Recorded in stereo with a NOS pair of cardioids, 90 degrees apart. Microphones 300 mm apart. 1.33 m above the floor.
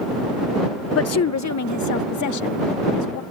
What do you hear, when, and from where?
0.9 s a woman speaking: 50° left; by 3.2 s 75° left